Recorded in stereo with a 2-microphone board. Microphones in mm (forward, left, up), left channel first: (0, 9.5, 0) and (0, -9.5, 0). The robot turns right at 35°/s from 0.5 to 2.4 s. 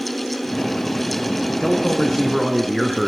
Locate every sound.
1.6 s a man speaking: 30° left (ahead or behind), 3 m; by 3.1 s 5° left (ahead or behind), 3 m